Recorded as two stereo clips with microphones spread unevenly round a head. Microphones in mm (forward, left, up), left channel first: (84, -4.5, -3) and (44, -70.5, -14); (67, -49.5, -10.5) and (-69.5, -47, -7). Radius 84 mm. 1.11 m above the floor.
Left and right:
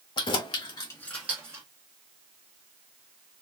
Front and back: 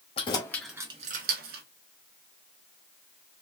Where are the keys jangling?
60° left, 0.9 m; by 1.6 s 170° left, 1.0 m.